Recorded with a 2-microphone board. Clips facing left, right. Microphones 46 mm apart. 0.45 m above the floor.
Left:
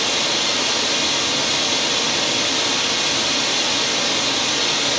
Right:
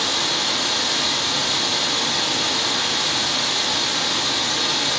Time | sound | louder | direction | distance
0.0 | running water | left 2 dB | 80° left | 6.5 m